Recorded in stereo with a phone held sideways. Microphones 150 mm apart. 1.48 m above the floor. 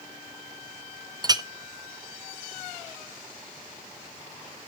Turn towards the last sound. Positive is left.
turn(degrees=-30)  # may be behind; listen again after turning